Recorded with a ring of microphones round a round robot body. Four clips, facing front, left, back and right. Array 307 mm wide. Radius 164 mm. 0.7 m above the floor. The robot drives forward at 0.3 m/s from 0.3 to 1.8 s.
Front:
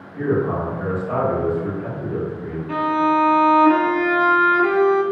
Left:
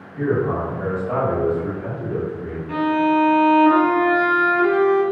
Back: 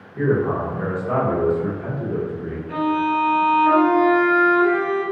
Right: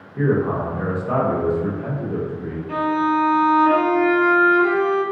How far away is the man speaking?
About 1.3 m.